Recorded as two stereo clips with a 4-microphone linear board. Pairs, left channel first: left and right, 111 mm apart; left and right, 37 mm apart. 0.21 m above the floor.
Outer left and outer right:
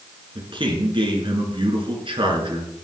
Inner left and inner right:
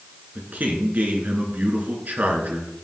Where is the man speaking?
50° right (ahead or behind), 3 m.